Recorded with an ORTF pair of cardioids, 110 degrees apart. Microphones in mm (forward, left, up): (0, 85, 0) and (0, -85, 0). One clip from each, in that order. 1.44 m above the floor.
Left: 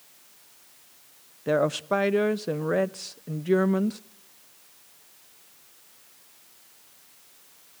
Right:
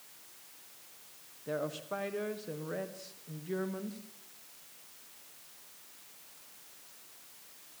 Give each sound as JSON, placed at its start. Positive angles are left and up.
{"t": 1.5, "sound": "a woman speaking", "azimuth_deg": 60, "distance_m": 0.7}